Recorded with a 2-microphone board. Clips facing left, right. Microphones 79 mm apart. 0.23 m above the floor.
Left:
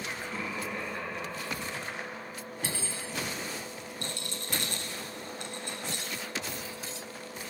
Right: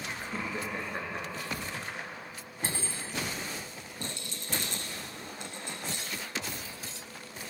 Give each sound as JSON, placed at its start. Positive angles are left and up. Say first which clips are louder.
{"t": 0.2, "sound": "laughter", "louder": "right 2 dB", "side_deg": -25, "distance_m": 3.5}
{"t": 2.6, "sound": "cutlery clinking", "louder": "right 2 dB", "side_deg": -40, "distance_m": 0.9}
{"t": 4.0, "sound": "a rattle", "louder": "even", "side_deg": 65, "distance_m": 1.3}